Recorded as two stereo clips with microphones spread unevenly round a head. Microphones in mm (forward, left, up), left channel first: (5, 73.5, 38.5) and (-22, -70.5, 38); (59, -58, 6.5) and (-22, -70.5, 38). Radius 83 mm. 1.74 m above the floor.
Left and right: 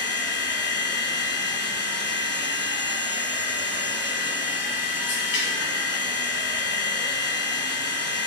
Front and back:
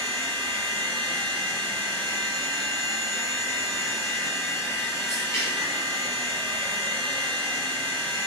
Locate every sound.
0.0 s a machine running: 85° left, 1.1 m